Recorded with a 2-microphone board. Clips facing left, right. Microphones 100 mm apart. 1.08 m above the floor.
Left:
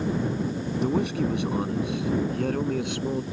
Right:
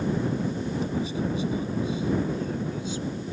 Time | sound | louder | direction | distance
0.8 | a man speaking | left 7 dB | 75° left (ahead or behind) | ?